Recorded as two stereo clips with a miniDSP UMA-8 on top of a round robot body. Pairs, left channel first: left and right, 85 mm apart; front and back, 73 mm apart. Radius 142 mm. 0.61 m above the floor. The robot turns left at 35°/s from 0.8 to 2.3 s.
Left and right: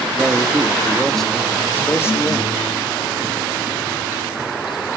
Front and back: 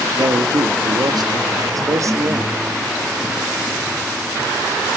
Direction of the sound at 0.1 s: 170° right.